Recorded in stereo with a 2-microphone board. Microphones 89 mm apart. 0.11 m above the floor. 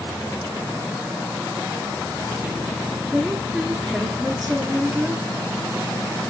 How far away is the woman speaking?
About 1.2 m.